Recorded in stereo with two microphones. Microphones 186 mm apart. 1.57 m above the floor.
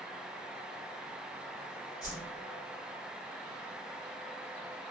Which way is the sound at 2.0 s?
20° left (ahead or behind).